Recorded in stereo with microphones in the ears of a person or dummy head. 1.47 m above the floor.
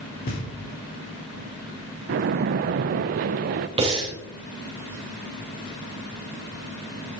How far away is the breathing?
About 3 m.